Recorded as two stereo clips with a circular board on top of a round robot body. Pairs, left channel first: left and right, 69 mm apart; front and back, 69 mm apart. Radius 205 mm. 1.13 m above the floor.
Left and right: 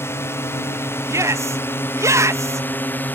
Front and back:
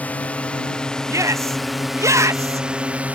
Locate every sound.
0.0 s a drone: 60° left; by 3.2 s 130° left
1.1 s a shout: 135° right